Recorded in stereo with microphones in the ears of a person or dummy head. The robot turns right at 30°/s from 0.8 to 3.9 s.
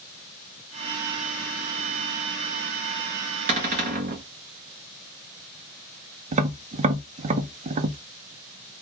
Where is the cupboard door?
35° right (ahead or behind), 0.9 m; by 4.2 s 40° right (ahead or behind), 0.9 m.